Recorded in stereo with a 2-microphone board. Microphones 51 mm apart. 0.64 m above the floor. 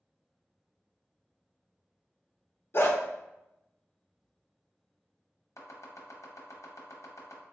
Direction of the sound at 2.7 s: 45° left (ahead or behind).